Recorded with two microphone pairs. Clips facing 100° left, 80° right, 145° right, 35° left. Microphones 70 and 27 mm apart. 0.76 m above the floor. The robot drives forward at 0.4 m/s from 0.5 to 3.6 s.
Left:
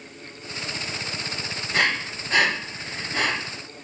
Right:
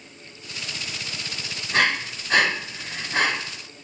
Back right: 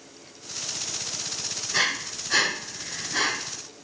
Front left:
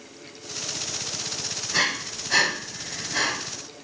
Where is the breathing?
50° right, 3.5 m; by 3.3 s 60° right, 3 m.